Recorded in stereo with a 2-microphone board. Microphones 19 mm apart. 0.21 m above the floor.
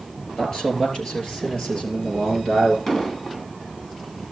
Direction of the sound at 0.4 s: 35° left (ahead or behind).